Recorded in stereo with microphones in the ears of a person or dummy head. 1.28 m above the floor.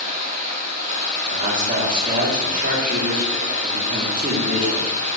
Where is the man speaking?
30° right (ahead or behind), 1.7 m.